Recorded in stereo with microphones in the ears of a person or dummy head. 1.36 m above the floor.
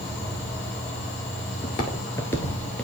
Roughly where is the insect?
Left.